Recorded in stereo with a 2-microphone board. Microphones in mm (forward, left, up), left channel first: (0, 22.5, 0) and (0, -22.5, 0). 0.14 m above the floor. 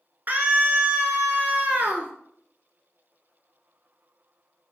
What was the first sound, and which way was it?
A scream, 45° right (ahead or behind).